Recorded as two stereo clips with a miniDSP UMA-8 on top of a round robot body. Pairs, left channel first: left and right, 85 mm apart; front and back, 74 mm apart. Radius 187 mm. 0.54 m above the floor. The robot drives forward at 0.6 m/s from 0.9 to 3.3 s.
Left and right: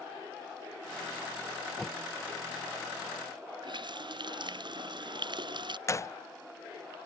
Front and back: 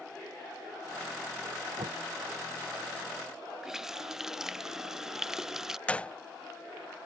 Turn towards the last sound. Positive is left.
turn(degrees=65)